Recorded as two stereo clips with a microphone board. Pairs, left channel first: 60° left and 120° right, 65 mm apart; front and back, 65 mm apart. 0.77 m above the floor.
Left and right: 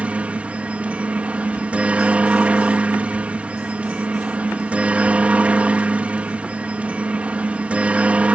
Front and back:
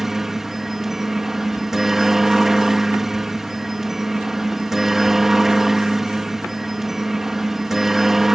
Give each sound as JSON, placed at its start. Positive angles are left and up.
{"t": 0.0, "sound": "a helicopter", "azimuth_deg": -105}